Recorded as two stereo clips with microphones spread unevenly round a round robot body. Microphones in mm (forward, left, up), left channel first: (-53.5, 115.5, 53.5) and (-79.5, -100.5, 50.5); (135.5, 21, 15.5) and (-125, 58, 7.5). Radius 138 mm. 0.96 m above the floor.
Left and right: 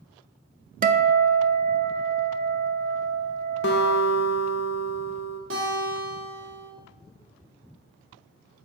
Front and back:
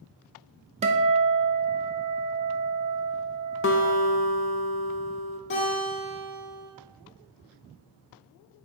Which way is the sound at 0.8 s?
130° right.